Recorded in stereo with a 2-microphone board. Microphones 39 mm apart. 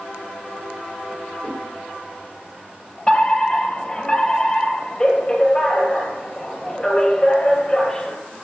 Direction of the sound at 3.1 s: 20° left (ahead or behind).